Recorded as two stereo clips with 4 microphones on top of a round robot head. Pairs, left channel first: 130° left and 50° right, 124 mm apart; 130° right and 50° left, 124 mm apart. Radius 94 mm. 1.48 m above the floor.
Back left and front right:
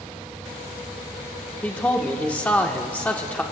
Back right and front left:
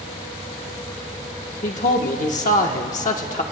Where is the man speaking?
155° right, 1.2 m.